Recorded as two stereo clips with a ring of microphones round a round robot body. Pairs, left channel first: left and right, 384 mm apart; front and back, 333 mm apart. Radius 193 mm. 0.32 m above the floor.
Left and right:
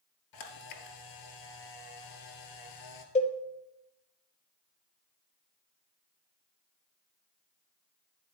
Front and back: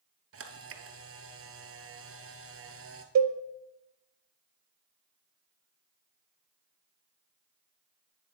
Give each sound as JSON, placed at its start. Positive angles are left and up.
{"t": 0.3, "sound": "a camera shutter", "azimuth_deg": 130, "distance_m": 1.5}
{"t": 3.1, "sound": "a cowbell", "azimuth_deg": 160, "distance_m": 1.0}